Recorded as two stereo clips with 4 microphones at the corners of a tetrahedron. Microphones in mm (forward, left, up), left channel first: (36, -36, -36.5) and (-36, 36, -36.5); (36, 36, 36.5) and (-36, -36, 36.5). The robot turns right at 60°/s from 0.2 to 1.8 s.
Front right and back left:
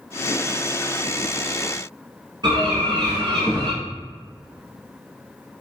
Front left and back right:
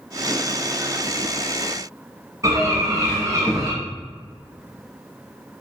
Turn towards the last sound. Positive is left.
turn(degrees=175)